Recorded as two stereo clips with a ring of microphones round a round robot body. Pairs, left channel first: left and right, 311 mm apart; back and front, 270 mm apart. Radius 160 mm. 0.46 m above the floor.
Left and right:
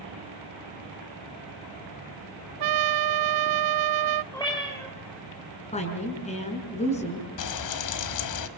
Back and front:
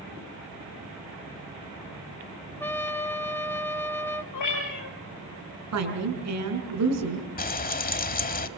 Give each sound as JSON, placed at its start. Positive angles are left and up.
{"t": 2.6, "sound": "a trumpet", "azimuth_deg": -100, "distance_m": 0.7}
{"t": 4.3, "sound": "a cat meowing", "azimuth_deg": 170, "distance_m": 6.0}
{"t": 5.7, "sound": "a woman speaking", "azimuth_deg": 20, "distance_m": 5.5}
{"t": 7.4, "sound": "frying", "azimuth_deg": 120, "distance_m": 1.4}